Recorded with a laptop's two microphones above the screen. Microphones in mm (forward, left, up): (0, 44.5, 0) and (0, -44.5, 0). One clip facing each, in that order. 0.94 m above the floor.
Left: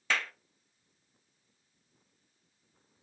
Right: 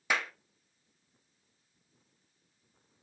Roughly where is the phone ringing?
No phone ringing in this recording.